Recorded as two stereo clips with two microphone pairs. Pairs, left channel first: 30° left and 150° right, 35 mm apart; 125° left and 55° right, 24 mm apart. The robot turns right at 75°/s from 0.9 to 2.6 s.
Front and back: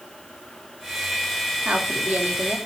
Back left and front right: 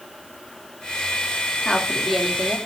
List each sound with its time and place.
1.6 s a woman speaking: 165° left, 2.5 m; by 2.6 s 125° right, 2.5 m